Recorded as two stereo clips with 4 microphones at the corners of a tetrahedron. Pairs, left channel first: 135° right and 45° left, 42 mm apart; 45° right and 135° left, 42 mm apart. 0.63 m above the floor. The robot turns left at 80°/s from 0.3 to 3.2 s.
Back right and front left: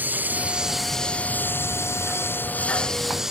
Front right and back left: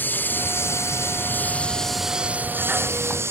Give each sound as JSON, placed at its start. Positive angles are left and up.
{"t": 0.0, "sound": "a lawn mower", "azimuth_deg": -5}